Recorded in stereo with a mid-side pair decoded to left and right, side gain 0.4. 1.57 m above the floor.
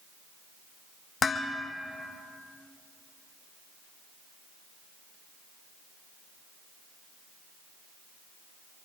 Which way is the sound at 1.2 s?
45° left.